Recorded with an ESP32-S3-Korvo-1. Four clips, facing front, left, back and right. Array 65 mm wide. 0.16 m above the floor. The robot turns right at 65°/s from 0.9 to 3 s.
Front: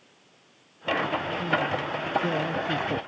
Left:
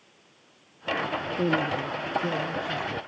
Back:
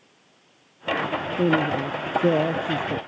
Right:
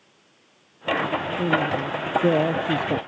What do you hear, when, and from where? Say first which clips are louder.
1.4 s a woman speaking: right 2 dB, back 8 dB; 165° left; by 3.0 s 90° right